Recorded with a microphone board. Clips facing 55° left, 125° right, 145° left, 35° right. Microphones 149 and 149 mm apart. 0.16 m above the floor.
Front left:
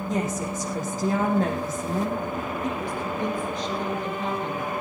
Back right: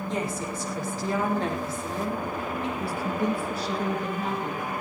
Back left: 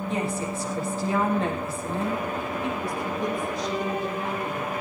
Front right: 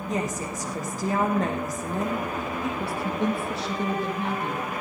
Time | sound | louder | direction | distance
0.1 | a woman speaking | front left 4 dB, front right 1 dB | 10° left | 5.5 m
2.8 | a woman speaking | back right 1 dB, front right 2 dB | 45° right | 5.5 m